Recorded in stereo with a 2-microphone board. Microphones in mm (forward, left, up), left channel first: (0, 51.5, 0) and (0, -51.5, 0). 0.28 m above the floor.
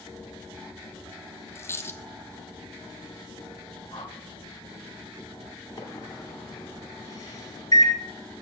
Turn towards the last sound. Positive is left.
turn(degrees=35)  # may be behind; listen again after turning